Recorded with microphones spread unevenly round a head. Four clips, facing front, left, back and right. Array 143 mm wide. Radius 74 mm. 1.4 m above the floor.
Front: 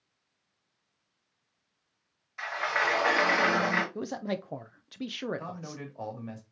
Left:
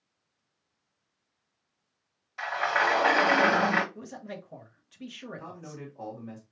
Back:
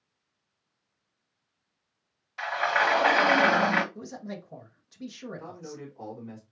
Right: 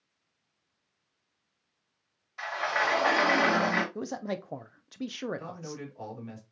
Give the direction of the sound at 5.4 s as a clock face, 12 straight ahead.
12 o'clock.